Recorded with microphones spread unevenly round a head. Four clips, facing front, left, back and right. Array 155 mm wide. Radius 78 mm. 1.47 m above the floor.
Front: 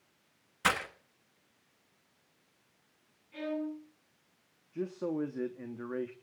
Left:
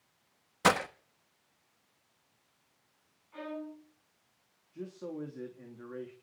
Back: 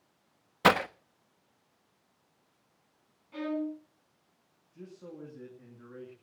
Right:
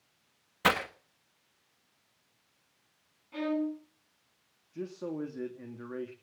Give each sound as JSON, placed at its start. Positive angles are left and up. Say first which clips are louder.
{"t": 0.6, "sound": "breaking glass", "louder": "left 1 dB, back 8 dB", "azimuth_deg": 170, "distance_m": 1.3}
{"t": 3.3, "sound": "a violin", "louder": "right 10 dB, back 2 dB", "azimuth_deg": -120, "distance_m": 8.0}
{"t": 4.7, "sound": "a man speaking", "louder": "right 4 dB, front 12 dB", "azimuth_deg": -20, "distance_m": 3.0}